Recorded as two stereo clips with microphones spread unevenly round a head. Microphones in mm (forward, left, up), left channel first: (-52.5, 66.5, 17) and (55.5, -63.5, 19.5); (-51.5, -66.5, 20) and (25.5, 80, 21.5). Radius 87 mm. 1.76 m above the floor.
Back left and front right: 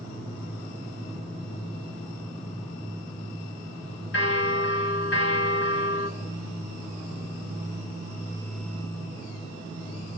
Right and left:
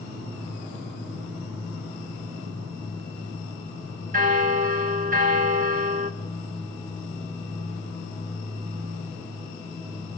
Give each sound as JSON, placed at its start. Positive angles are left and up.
{"t": 4.1, "sound": "a bell", "azimuth_deg": 105, "distance_m": 2.5}